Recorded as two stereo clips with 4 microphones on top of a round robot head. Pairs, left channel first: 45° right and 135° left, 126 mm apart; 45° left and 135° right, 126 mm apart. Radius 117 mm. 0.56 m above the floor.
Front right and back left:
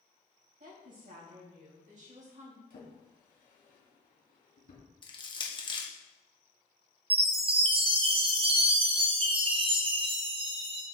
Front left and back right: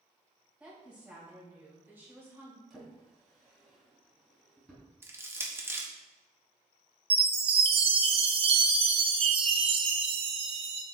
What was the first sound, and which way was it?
A woman speaking, 145° left.